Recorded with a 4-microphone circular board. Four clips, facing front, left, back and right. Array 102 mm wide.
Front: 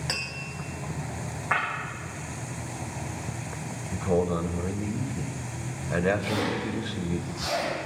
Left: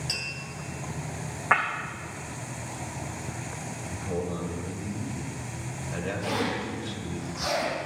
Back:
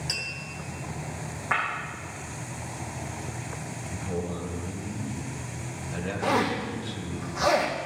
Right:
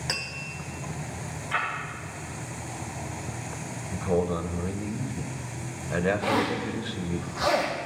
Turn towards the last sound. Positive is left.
turn(degrees=-155)